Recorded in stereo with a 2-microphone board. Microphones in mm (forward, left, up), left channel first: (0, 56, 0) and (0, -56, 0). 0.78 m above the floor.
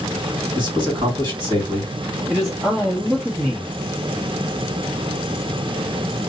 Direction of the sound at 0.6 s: 40° right (ahead or behind).